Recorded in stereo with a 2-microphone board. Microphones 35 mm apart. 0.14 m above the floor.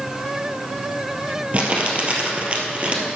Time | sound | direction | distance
1.5 | crumpling | 40° right (ahead or behind) | 1.7 m